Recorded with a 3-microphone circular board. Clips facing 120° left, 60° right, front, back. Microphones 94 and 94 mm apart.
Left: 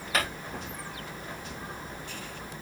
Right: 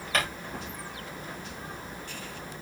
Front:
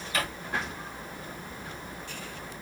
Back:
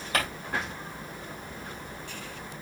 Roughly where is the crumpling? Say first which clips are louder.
Even, back 2 dB; behind right.